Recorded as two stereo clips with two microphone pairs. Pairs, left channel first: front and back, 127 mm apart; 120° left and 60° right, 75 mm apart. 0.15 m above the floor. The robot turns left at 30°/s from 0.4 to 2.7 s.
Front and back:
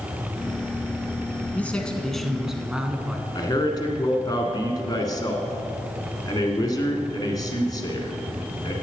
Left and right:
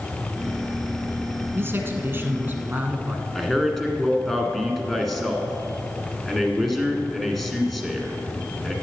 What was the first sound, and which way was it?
A man speaking, 65° right.